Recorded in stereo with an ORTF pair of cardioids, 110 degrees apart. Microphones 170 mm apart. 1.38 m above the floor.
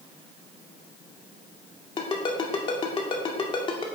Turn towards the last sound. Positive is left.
turn(degrees=30)